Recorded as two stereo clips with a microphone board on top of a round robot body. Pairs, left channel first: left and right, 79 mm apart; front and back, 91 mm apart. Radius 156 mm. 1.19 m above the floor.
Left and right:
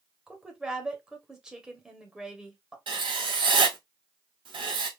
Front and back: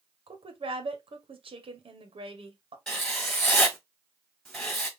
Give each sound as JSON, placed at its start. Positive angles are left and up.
{"t": 0.3, "sound": "a woman speaking", "azimuth_deg": -170, "distance_m": 1.4}
{"t": 2.9, "sound": "writing", "azimuth_deg": -85, "distance_m": 2.5}